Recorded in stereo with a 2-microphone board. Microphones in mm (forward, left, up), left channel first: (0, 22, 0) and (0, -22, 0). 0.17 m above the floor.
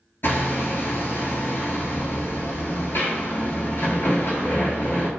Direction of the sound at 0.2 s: 55° left (ahead or behind).